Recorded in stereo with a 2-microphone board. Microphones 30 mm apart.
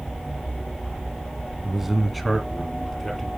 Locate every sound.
1.6 s a man speaking: 5° right (ahead or behind), 2 m; by 3.3 s 15° left (ahead or behind), 3.5 m